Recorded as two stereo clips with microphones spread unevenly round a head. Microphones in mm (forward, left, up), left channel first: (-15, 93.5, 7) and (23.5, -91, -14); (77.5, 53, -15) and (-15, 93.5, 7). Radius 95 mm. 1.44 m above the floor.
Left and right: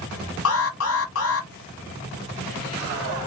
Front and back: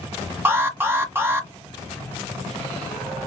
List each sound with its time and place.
0.5 s an alarm: 80° left, 1.4 m